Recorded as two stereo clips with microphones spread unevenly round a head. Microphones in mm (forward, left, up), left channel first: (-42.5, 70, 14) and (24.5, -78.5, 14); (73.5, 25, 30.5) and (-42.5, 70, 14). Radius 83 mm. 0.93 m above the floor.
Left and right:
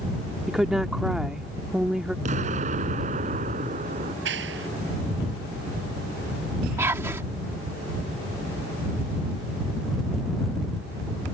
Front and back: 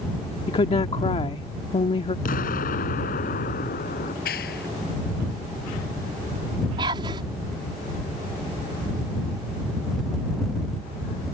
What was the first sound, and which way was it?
A woman speaking, 20° left.